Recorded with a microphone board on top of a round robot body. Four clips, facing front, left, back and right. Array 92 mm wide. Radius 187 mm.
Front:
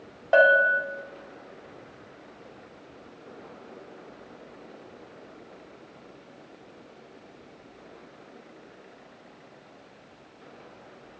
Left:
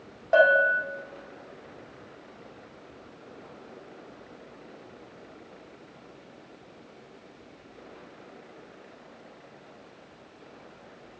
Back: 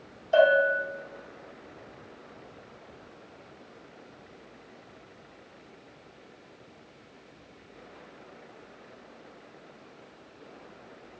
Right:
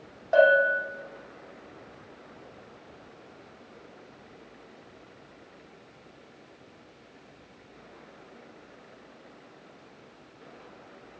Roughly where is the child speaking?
I don't hear a child speaking.